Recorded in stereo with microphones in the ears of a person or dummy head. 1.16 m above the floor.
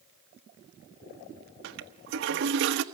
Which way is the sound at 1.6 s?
60° right (ahead or behind).